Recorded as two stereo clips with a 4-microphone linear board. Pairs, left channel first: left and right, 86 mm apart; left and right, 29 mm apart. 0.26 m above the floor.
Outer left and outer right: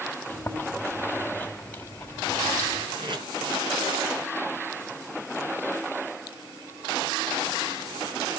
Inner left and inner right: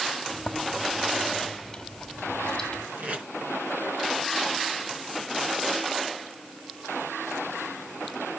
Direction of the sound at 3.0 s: 65° right (ahead or behind).